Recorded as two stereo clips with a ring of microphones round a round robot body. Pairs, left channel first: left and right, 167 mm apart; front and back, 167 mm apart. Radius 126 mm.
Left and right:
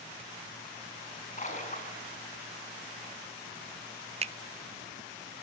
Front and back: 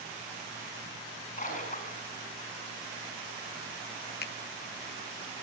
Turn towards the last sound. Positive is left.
turn(degrees=-35)